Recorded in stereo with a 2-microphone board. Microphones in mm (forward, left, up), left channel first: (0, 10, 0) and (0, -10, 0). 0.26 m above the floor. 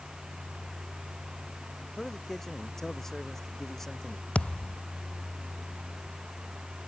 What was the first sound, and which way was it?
A man speaking, 20° left (ahead or behind).